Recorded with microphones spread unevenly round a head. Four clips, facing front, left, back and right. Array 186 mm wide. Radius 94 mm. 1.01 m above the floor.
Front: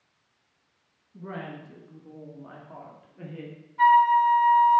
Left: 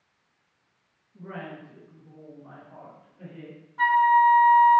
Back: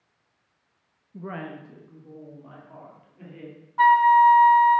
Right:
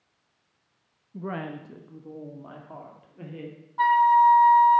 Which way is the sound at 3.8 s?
150° right.